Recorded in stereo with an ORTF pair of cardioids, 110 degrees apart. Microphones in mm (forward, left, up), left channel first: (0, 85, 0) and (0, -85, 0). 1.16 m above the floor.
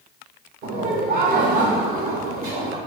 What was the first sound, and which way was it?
Laughter, 70° right.